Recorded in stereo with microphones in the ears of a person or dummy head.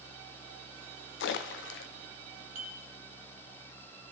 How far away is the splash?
About 0.5 m.